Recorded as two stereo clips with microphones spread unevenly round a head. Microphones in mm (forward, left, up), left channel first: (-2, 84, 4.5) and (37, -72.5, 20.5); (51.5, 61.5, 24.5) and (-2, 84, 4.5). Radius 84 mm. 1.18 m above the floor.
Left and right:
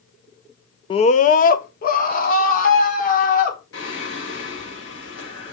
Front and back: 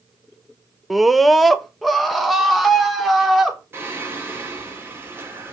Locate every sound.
0.9 s a scream: 105° left, 0.6 m; by 3.6 s 65° left, 4.5 m
3.7 s singing: 105° left, 5 m